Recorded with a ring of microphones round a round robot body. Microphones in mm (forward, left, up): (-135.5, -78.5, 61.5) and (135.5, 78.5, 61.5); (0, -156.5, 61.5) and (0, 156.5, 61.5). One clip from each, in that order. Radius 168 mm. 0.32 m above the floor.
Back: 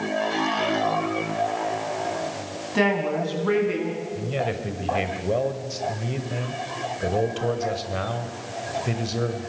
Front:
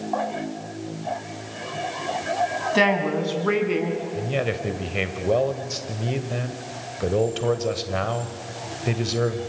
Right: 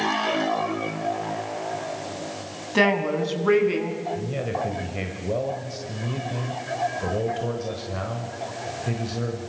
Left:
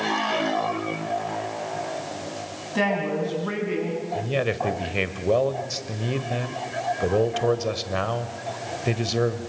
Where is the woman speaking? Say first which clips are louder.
Front 1 dB, right 3 dB; 35° right, 3.5 m; by 4.0 s 45° right, 5 m.